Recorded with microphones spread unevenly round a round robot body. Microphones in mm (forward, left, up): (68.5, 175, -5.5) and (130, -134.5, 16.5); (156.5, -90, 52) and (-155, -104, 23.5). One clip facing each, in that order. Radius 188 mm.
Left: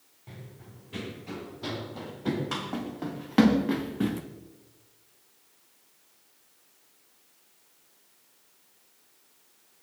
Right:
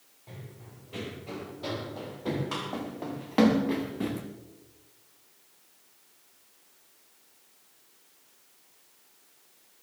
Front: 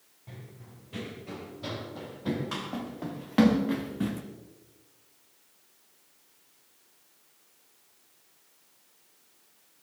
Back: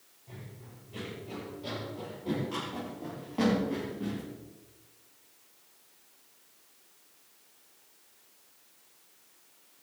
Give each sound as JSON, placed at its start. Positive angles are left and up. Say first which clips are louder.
{"t": 0.3, "sound": "running footsteps", "louder": "even, even", "azimuth_deg": 40, "distance_m": 6.0}